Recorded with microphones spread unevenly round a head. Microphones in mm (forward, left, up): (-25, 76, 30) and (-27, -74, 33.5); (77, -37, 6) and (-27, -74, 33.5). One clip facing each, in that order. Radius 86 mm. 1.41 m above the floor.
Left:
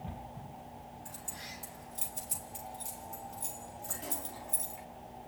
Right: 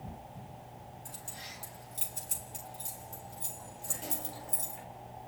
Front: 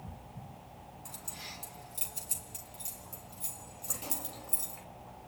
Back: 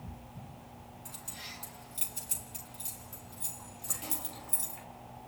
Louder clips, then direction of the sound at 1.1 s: Left 1 dB, even; 25° right.